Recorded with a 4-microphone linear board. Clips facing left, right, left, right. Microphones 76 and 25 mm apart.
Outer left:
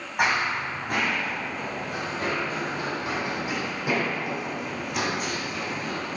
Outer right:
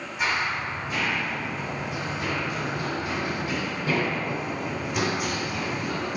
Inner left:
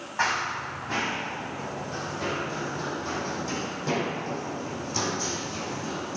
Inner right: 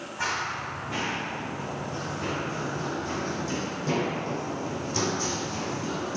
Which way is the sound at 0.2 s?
60° left (ahead or behind).